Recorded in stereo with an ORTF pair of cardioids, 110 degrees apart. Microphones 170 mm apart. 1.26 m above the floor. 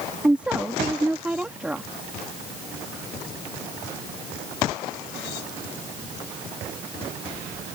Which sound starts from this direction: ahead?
A woman speaking, at 0.2 s.